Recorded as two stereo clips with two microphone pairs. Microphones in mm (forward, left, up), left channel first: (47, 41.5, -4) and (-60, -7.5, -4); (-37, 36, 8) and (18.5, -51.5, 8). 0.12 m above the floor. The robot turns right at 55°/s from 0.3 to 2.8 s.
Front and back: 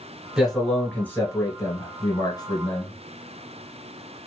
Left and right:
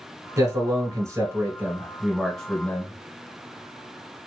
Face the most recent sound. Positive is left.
turn(degrees=60)